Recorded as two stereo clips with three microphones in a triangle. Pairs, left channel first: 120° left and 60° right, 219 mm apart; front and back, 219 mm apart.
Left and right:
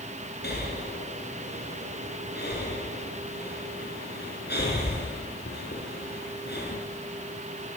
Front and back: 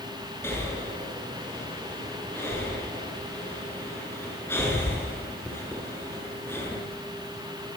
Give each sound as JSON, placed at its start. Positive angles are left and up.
{"t": 0.4, "sound": "breathing", "azimuth_deg": 80, "distance_m": 6.0}